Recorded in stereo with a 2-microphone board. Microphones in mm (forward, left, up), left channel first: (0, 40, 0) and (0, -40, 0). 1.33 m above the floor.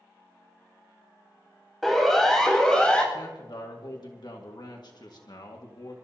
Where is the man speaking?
65° left (ahead or behind), 1.8 m.